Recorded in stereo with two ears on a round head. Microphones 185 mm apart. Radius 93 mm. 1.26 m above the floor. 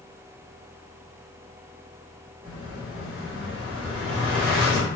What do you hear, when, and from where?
2.4 s an explosion: centre (ahead or behind), 1.5 m